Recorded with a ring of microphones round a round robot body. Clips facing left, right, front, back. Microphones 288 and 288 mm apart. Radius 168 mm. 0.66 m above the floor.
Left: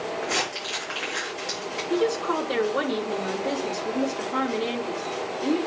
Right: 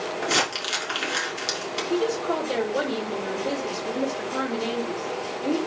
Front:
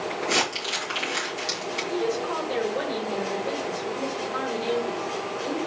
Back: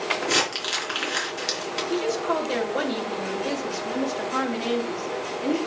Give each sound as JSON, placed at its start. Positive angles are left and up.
{"t": 0.2, "sound": "crumpling", "azimuth_deg": -120, "distance_m": 4.5}
{"t": 1.9, "sound": "a woman speaking", "azimuth_deg": 170, "distance_m": 3.5}